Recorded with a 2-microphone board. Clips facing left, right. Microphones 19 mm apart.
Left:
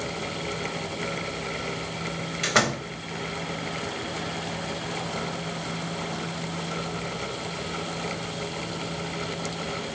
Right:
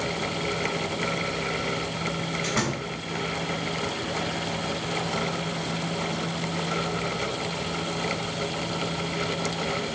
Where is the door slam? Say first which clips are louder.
Left 7 dB; 75° left (ahead or behind), 3.5 m.